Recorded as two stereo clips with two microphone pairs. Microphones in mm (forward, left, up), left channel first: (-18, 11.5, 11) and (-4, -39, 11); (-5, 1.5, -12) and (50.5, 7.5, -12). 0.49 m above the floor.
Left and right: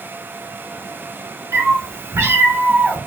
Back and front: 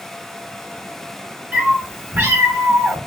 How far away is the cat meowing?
About 3 m.